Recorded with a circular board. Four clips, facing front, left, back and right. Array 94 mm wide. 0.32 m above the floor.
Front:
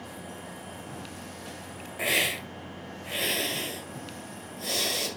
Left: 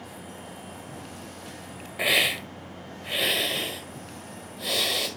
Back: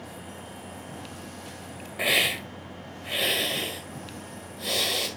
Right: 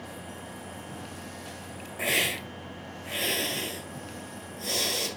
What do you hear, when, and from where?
2.0 s a hiss: 120° left, 1.6 m